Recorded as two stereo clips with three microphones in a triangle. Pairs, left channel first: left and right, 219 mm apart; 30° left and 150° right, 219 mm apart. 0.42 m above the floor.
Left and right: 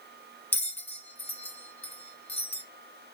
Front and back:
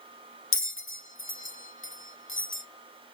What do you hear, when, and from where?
0.5 s a bell: 10° left, 0.5 m